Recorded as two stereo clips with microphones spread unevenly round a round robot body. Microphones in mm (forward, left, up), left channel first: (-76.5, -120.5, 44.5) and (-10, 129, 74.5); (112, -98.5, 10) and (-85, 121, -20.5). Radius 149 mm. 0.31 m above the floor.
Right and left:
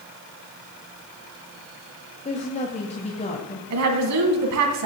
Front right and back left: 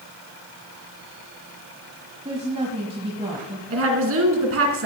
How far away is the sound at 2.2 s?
About 1.6 m.